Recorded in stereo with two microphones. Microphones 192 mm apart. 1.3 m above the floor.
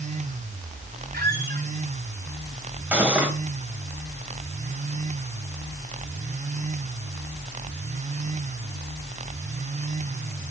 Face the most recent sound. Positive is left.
turn(degrees=-10)  # may be behind; listen again after turning